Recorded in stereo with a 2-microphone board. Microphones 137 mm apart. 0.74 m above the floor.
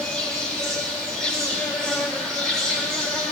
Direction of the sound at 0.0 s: 5° left (ahead or behind).